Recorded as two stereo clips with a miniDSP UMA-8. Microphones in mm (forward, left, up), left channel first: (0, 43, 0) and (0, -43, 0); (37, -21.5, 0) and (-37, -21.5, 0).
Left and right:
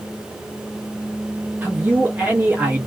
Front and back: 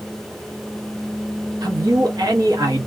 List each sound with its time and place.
1.6 s a man speaking: 160° right, 0.7 m